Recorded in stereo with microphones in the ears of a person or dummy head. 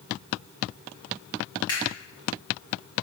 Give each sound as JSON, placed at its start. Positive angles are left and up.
{"t": 1.7, "sound": "a camera shutter", "side_deg": 25, "distance_m": 1.7}